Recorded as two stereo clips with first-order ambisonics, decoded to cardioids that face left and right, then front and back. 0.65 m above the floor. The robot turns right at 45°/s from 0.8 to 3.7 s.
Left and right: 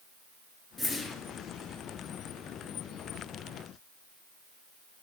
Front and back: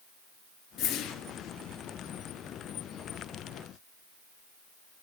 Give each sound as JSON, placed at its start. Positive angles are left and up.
{"t": 0.8, "sound": "a whoosh", "azimuth_deg": 5, "distance_m": 1.1}